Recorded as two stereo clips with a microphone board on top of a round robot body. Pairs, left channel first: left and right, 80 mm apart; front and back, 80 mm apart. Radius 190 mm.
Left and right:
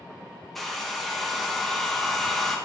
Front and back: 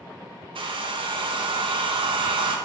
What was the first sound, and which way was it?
A hair dryer, straight behind.